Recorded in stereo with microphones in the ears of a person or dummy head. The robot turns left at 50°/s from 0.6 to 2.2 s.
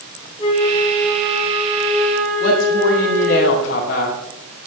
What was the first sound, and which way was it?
A flute, 30° left.